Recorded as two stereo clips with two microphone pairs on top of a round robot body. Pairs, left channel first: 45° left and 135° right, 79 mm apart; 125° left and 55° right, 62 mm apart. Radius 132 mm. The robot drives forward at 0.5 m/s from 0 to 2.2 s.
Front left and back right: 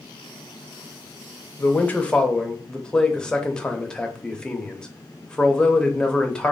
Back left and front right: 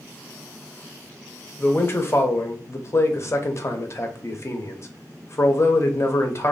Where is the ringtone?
No ringtone in this recording.